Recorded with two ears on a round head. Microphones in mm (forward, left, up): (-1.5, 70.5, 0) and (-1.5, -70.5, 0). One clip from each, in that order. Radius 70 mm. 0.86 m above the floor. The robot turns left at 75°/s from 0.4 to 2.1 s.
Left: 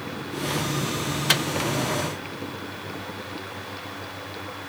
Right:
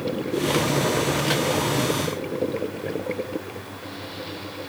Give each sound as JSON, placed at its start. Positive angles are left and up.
{"t": 1.3, "sound": "a microwave", "side_deg": 60, "distance_m": 0.6}